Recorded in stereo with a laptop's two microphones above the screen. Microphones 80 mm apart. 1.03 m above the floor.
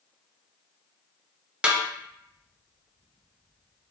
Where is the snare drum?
15° right (ahead or behind), 0.6 m.